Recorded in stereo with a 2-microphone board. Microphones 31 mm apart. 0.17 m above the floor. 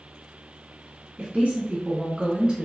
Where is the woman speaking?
35° right (ahead or behind), 1.3 m; by 2.7 s 15° right (ahead or behind), 1.4 m.